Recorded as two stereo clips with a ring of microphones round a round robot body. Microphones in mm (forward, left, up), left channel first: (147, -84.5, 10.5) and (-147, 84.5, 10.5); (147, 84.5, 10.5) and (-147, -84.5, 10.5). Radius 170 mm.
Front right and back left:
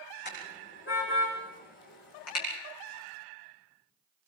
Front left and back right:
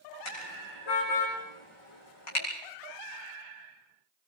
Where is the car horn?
30° left, 10 m; by 2.5 s 20° left, 9 m.